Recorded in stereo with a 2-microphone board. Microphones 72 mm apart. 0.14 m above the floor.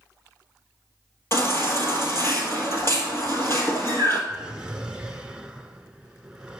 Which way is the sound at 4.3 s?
10° right (ahead or behind).